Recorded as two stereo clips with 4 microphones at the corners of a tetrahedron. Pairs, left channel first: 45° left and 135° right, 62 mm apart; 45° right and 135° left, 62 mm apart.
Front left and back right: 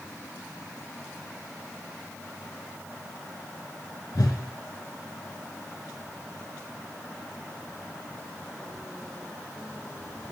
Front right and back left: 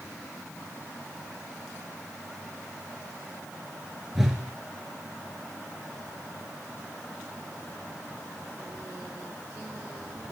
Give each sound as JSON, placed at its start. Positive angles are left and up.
{"t": 4.2, "sound": "a whoosh", "azimuth_deg": 50, "distance_m": 0.8}